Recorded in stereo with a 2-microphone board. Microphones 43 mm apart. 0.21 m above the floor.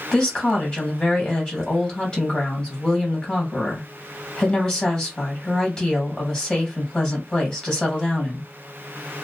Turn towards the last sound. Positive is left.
turn(degrees=20)  # may be behind; listen again after turning